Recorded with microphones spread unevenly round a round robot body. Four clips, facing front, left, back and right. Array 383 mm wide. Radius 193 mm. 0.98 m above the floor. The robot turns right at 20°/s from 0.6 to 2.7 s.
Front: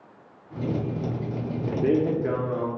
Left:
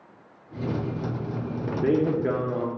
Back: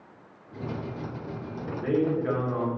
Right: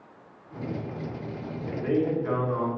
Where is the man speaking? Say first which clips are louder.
Left 3 dB, front 3 dB; 45° left, 0.7 m; by 2.7 s 65° left, 0.7 m.